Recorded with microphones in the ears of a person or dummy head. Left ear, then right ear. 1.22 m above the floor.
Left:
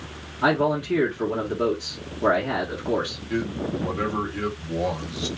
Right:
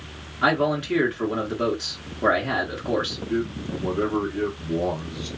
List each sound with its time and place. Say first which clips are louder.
0.4 s a man speaking: even; 50° right (ahead or behind), 0.9 m
3.3 s a man speaking: even; 70° left (ahead or behind), 0.9 m